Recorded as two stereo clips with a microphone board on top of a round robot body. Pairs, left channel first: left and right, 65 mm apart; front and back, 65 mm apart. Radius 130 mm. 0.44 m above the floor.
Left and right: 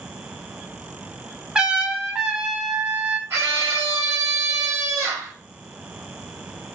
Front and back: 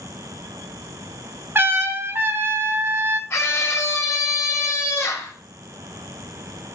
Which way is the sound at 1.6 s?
160° right.